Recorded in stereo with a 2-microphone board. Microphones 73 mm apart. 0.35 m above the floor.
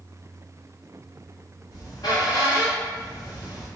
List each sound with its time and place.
1.7 s a squeak: 65° left (ahead or behind), 1.2 m